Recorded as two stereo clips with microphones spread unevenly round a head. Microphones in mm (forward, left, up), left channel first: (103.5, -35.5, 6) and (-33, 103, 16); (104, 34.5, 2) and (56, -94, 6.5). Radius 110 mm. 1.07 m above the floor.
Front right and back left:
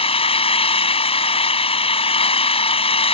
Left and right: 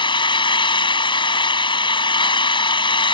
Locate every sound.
0.0 s an engine running: 15° left